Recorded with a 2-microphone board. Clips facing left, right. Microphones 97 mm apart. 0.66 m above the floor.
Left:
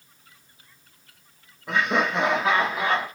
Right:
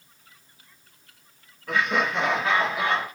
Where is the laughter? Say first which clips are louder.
Left 1 dB; 20° left (ahead or behind), 0.7 m; by 3.1 s 10° left (ahead or behind), 1.5 m.